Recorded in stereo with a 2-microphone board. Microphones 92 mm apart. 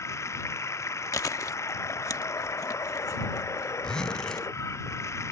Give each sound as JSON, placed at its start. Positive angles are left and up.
{"t": 0.0, "sound": "running water", "side_deg": 35}
{"t": 1.1, "sound": "chewing", "side_deg": 40}
{"t": 3.8, "sound": "a zipper", "side_deg": 5}